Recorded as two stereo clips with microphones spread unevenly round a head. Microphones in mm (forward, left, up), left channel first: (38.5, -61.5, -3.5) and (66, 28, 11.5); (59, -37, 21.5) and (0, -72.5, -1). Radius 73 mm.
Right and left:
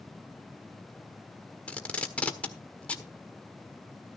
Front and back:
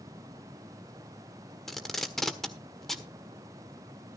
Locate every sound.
1.7 s tape being pulled: 25° right, 1.4 m